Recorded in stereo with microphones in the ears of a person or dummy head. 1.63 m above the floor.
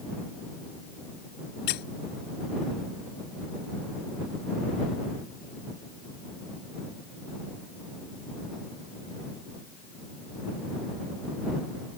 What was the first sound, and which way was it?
A squeak, 55° left (ahead or behind).